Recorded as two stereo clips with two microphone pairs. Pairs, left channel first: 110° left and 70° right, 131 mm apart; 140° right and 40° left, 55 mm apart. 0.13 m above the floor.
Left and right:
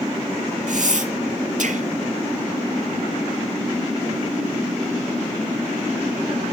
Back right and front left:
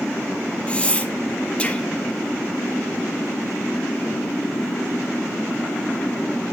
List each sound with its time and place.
0.7 s breathing: 75° right, 0.7 m